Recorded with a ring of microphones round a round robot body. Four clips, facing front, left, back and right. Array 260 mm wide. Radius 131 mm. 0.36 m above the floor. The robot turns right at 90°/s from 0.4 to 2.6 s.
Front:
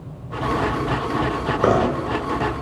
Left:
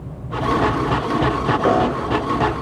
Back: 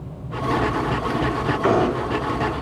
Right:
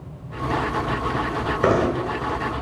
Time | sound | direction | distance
1.6 | knocking | 25° right | 3.5 m